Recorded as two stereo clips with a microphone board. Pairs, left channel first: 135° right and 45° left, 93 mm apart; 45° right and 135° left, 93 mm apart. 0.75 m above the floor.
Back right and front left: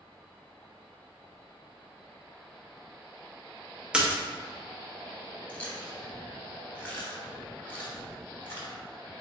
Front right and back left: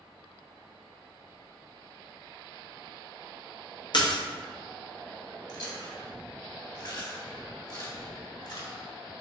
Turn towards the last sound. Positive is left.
turn(degrees=-70)